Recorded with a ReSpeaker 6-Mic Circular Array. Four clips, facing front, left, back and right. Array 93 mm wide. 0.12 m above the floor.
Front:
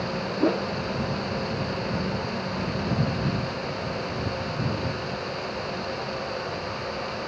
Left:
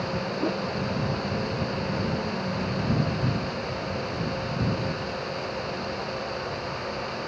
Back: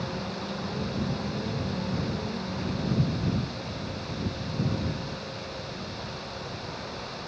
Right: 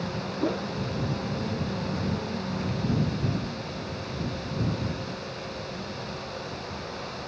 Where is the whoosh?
5° right.